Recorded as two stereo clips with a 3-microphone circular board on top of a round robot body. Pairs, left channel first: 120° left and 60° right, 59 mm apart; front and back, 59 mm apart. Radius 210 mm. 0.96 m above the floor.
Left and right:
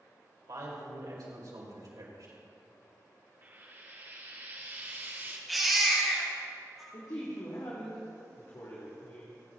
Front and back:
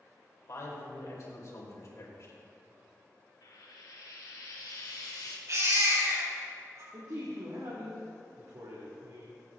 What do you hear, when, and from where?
0.5 s a man speaking: 40° right, 5 m
3.4 s frying: 5° right, 3 m
5.5 s a baby crying: 150° right, 5 m
6.9 s a man speaking: 150° left, 2.5 m